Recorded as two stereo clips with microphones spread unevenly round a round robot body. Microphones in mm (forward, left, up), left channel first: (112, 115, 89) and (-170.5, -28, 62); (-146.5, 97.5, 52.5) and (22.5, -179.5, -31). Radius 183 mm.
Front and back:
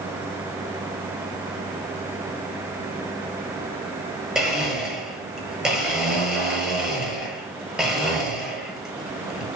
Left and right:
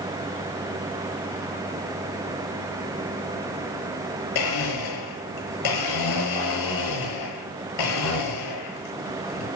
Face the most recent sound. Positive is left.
turn(degrees=120)